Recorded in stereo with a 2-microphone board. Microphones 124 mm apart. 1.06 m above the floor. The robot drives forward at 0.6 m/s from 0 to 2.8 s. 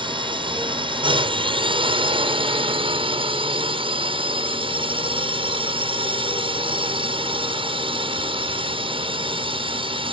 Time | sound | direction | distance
0.0 | a drone | 40° right (ahead or behind) | ?